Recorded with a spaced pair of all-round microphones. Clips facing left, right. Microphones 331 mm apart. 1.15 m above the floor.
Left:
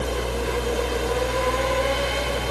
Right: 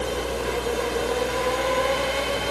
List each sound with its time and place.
0.0 s a fan: 35° left (ahead or behind), 0.9 m